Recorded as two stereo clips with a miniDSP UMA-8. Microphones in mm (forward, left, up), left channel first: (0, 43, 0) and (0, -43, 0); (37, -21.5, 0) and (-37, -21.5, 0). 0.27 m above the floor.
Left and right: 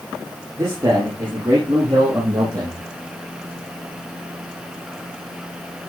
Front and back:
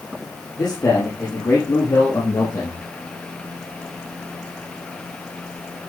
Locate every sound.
0.6 s a man speaking: 35° right, 8.5 m; by 2.8 s 50° right, 8 m